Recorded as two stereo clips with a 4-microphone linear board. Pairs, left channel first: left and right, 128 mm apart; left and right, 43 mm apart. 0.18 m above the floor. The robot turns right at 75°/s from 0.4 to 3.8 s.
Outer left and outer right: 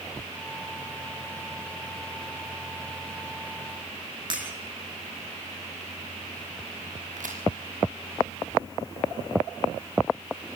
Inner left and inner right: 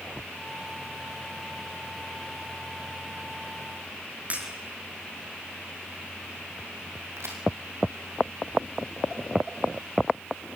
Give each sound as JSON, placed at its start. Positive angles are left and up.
{"t": 4.3, "sound": "breaking glass", "side_deg": -40, "distance_m": 5.0}
{"t": 7.2, "sound": "a crack", "side_deg": -85, "distance_m": 3.5}